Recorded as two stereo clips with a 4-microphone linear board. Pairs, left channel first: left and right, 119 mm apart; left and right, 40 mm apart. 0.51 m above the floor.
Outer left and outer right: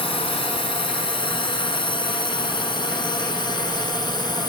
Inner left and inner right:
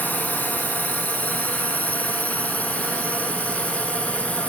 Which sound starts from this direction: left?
A drone, at 0.0 s.